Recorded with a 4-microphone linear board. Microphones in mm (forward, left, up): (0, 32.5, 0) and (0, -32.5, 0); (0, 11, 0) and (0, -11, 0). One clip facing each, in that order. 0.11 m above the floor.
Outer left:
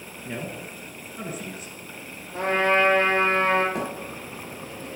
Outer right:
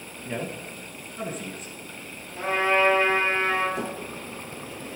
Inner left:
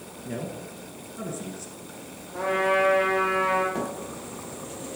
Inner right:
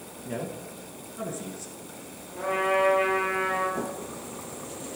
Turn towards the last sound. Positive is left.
turn(degrees=80)